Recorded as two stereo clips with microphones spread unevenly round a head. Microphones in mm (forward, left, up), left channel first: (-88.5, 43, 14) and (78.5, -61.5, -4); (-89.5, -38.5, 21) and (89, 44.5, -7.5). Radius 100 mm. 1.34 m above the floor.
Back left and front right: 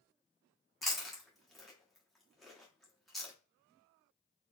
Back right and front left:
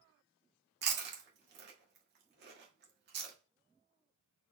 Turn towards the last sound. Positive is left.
turn(degrees=60)